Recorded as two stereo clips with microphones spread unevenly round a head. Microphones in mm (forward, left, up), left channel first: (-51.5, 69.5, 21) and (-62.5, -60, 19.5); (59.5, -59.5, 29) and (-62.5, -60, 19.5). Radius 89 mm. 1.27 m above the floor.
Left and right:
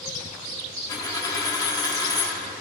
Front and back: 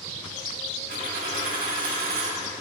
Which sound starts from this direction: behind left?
A dropped coin, at 0.9 s.